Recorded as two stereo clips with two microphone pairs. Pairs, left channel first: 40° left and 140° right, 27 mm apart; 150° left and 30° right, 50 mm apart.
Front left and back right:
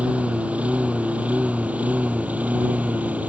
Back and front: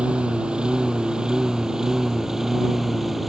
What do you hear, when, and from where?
0.0 s a lawn mower: 100° right; by 3.3 s 115° right